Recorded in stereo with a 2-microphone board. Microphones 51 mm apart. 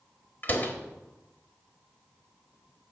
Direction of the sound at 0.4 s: 40° left (ahead or behind).